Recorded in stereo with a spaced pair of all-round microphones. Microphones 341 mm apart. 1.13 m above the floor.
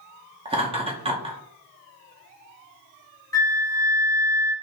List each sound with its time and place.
0.5 s laughter: 15° right (ahead or behind), 0.5 m
3.3 s a flute: 10° left (ahead or behind), 0.7 m